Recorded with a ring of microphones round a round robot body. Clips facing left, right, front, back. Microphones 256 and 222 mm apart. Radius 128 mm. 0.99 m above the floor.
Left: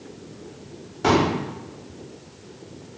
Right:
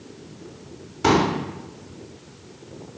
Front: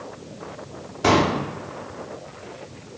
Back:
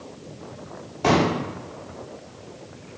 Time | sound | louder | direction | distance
1.0 | a pop | even, front 1 dB | 50° right | 0.8 m